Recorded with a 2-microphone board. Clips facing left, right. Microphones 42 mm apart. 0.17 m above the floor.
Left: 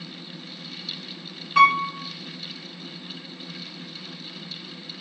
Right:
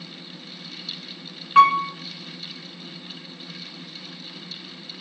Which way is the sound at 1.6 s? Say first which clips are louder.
Right 2 dB; 30° right (ahead or behind).